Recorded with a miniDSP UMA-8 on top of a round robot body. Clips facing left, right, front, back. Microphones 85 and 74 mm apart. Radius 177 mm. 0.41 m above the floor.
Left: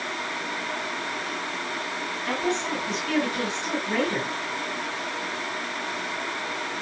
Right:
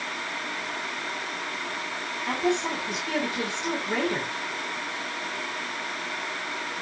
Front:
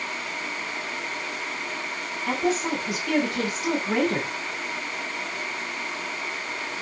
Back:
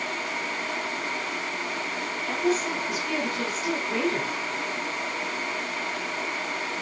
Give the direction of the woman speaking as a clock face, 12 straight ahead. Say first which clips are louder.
Right 1 dB, front 1 dB; 12 o'clock.